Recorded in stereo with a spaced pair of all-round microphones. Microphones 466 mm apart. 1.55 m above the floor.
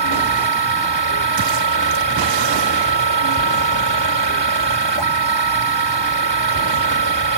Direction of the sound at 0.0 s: 65° right (ahead or behind).